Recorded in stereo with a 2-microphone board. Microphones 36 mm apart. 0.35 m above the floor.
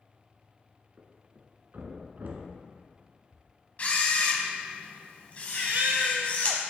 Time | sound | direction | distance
1.0 | a thud | 55° right (ahead or behind) | 1.0 m
3.8 | a camera shutter | 40° left (ahead or behind) | 1.1 m
5.5 | a baby crying | 65° right (ahead or behind) | 0.7 m